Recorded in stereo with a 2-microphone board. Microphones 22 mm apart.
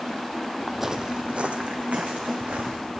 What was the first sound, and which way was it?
Footsteps, centre (ahead or behind).